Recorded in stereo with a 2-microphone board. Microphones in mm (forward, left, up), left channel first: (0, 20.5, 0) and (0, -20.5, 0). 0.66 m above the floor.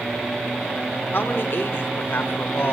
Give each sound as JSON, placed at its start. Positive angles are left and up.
{"t": 1.1, "sound": "a man speaking", "side_deg": 60, "distance_m": 2.0}